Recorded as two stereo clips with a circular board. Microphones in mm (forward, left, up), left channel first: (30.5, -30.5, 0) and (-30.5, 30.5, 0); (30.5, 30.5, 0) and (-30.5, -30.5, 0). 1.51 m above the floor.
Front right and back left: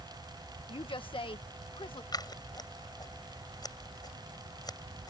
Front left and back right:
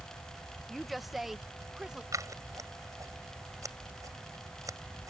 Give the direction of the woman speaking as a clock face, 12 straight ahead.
1 o'clock.